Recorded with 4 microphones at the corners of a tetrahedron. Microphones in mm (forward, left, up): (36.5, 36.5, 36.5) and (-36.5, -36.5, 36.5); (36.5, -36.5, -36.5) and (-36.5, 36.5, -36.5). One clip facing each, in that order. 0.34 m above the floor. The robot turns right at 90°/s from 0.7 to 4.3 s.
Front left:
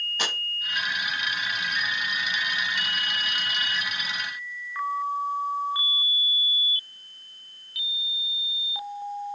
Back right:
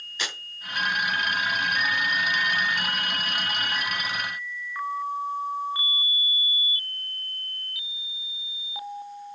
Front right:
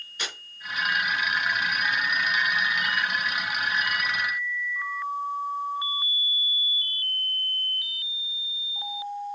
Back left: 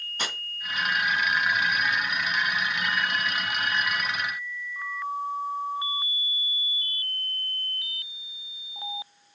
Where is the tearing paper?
85° left, 2.5 m.